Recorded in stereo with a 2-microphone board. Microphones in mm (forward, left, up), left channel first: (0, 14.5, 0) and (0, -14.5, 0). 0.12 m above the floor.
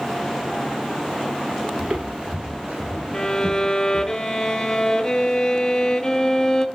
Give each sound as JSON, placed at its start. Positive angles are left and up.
{"t": 1.8, "sound": "footsteps", "side_deg": -35, "distance_m": 0.6}
{"t": 3.1, "sound": "a violin", "side_deg": 20, "distance_m": 0.6}